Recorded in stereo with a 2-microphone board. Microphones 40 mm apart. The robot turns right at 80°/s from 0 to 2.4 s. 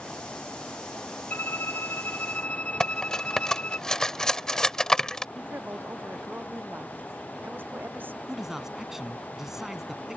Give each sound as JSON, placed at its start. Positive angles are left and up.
{"t": 1.3, "sound": "a violin", "azimuth_deg": 55}
{"t": 2.8, "sound": "cutlery clinking", "side_deg": 15}
{"t": 5.3, "sound": "a woman speaking", "side_deg": -65}
{"t": 8.3, "sound": "a man speaking", "side_deg": -15}